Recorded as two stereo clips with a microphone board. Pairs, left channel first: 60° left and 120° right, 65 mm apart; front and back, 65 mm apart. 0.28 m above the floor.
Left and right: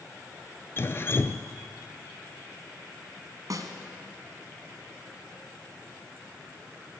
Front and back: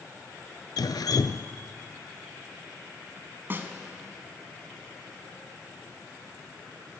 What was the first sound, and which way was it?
Dripping, 10° left.